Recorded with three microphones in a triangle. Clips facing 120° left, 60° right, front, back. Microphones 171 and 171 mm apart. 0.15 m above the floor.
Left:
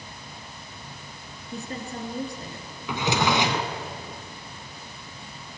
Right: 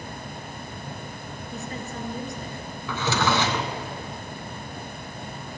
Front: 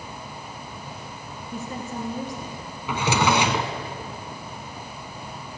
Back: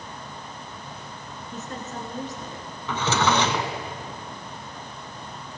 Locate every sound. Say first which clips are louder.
1.5 s a woman speaking: left 1 dB, front 3 dB; 75° left, 2 m
2.9 s a drawer: left 1 dB, front 1 dB; 65° left, 0.9 m